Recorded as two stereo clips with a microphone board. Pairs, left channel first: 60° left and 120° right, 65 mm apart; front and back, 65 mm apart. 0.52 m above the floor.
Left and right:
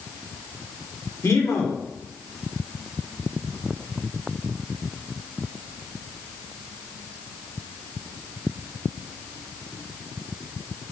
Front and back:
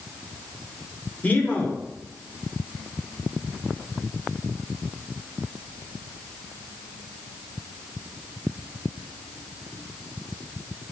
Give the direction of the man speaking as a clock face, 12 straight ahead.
10 o'clock.